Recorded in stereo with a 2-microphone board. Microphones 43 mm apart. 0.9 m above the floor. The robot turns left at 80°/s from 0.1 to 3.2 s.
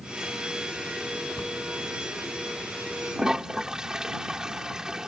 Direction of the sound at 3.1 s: 10° right (ahead or behind).